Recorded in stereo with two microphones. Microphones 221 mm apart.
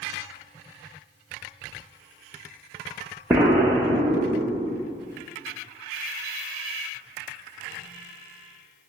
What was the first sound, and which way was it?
An explosion, 10° right (ahead or behind).